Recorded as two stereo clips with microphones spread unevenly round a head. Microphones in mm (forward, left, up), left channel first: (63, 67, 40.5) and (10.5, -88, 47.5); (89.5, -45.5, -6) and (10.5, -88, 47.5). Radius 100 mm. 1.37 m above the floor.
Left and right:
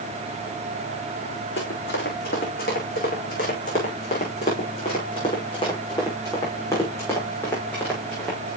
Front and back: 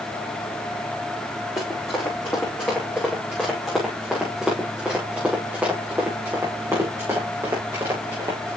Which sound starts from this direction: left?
Running footsteps, at 1.6 s.